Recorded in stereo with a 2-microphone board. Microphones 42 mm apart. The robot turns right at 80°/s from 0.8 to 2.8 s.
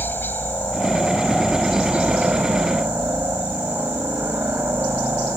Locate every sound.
0.0 s a helicopter: 120° left; by 5.4 s 80° right